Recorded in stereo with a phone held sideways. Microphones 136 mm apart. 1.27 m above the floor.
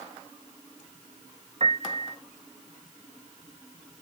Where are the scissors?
No scissors in this recording.